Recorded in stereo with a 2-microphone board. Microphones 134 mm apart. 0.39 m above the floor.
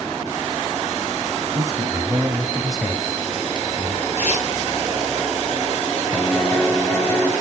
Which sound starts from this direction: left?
Tearing paper, at 4.2 s.